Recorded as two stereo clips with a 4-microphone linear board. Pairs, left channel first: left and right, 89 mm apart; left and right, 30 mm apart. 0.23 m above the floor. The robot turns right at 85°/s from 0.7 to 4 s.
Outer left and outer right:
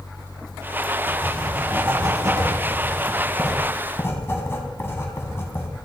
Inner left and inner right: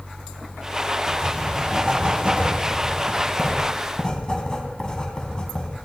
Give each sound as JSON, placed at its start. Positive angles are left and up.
{"t": 1.1, "sound": "writing", "azimuth_deg": 150, "distance_m": 2.0}